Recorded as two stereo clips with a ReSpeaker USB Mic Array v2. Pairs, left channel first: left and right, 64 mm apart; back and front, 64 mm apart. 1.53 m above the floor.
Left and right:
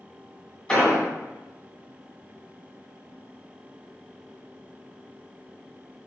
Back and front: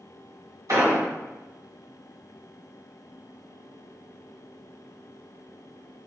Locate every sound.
0.7 s an explosion: 15° left, 2.0 m